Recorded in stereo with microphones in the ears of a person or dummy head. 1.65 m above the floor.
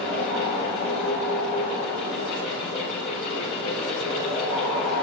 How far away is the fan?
About 6.5 m.